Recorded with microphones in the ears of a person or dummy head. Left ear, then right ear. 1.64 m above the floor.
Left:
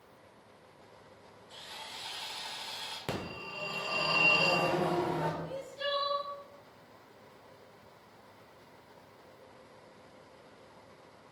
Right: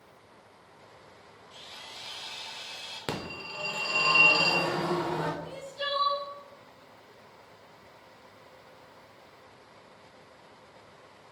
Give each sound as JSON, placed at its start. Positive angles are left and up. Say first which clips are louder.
{"t": 1.5, "sound": "sawing", "louder": "even", "side_deg": 50, "distance_m": 1.7}
{"t": 3.1, "sound": "a phone ringing", "louder": "right 6 dB", "side_deg": -20, "distance_m": 0.6}
{"t": 5.4, "sound": "crying", "louder": "right 2 dB", "side_deg": -15, "distance_m": 0.7}